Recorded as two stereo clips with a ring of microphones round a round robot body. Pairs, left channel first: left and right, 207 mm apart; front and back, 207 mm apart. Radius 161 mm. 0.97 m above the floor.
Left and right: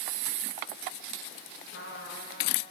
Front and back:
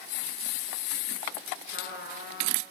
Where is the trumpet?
35° left, 3.5 m.